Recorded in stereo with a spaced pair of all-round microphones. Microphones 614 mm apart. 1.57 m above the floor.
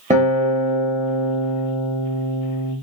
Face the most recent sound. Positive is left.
turn(degrees=-10)  # may be behind; listen again after turning